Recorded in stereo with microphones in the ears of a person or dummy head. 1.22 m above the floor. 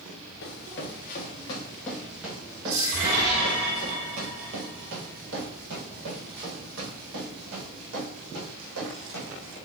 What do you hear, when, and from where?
0.4 s running footsteps: 45° left (ahead or behind), 1.5 m; by 9.6 s 65° right (ahead or behind), 5.5 m